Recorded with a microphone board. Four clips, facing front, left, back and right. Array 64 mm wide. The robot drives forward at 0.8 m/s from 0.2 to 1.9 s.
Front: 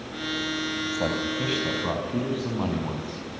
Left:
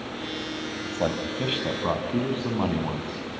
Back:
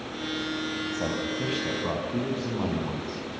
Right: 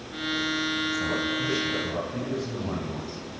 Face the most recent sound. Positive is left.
turn(degrees=85)